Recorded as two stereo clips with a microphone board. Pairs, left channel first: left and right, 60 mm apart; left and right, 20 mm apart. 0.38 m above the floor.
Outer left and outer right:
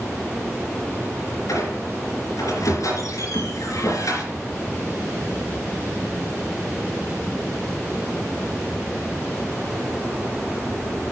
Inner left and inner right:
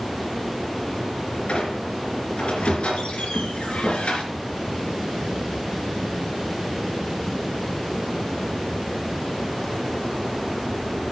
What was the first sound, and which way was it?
A squeak, 80° left.